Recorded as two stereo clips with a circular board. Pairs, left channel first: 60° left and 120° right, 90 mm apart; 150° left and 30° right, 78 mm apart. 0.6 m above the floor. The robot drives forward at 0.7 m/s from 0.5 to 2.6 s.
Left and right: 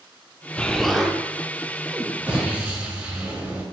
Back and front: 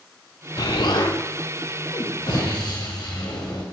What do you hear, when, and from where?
0.6 s an explosion: 135° left, 0.5 m; by 3.6 s 170° left, 1.8 m